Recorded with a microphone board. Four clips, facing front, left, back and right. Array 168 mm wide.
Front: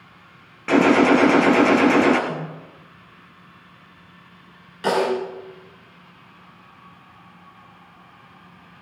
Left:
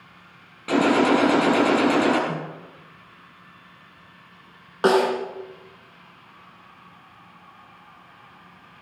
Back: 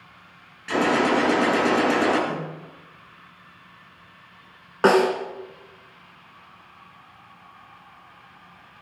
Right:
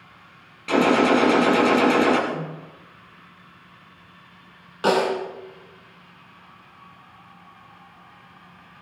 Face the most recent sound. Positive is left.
turn(degrees=150)